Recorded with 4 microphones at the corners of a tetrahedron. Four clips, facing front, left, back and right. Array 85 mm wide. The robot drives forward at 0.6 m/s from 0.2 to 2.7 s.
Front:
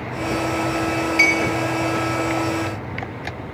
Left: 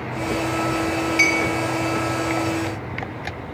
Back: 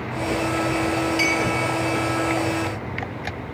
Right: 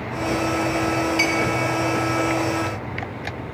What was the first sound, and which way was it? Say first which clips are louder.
A clink: left 2 dB, front 7 dB; 50° left.